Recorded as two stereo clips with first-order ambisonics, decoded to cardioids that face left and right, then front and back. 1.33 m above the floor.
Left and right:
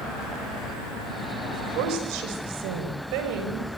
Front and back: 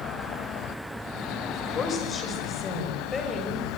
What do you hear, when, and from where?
1.5 s a woman speaking: 65° right, 7.5 m; by 3.7 s 75° right, 8 m